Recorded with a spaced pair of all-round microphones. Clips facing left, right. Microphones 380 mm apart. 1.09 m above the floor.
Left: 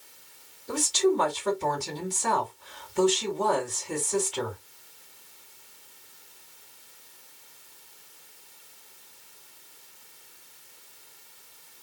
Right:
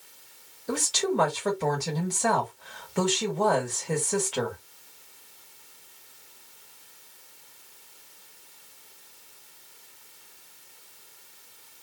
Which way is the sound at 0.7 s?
75° right (ahead or behind).